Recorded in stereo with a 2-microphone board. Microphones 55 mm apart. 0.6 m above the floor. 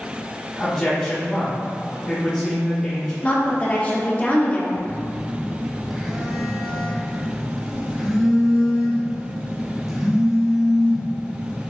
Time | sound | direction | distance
0.6 | a man speaking | 20° left (ahead or behind) | 1.3 m
3.2 | a woman speaking | 30° left (ahead or behind) | 1.0 m
4.8 | a phone buzzing | 5° right (ahead or behind) | 0.9 m